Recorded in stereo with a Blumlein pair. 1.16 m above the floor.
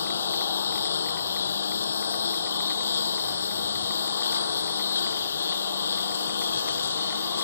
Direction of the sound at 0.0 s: 70° left.